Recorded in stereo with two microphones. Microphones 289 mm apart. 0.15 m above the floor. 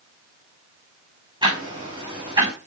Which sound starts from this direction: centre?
Ticking, at 1.4 s.